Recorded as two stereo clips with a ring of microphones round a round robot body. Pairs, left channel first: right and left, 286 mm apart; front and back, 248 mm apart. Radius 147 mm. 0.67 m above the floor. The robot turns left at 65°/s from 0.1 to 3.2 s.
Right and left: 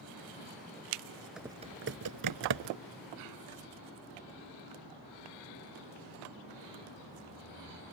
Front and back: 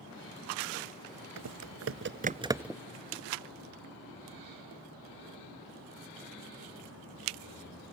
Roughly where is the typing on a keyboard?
Behind.